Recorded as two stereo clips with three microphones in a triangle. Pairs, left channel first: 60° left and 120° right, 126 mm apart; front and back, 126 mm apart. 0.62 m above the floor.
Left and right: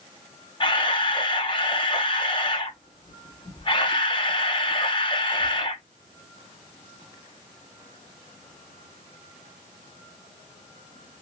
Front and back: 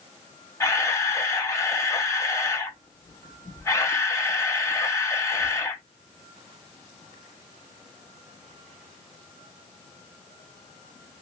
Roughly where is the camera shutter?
Ahead left.